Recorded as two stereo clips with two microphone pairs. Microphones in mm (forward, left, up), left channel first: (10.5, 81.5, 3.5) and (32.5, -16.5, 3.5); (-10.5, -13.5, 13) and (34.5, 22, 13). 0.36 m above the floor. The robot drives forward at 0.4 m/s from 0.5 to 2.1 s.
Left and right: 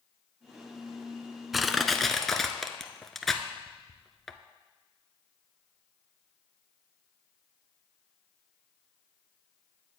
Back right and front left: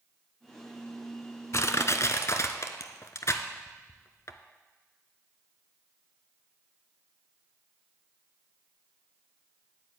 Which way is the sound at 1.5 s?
170° right.